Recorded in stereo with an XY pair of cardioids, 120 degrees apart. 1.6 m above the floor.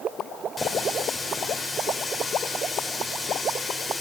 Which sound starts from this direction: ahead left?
A running tap, at 0.6 s.